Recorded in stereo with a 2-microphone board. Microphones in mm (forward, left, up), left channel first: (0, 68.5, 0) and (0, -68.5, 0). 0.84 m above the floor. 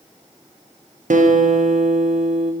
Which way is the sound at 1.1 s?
70° right (ahead or behind).